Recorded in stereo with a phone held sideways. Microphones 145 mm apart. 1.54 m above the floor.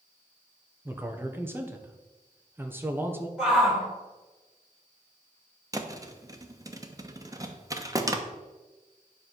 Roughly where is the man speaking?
Centre.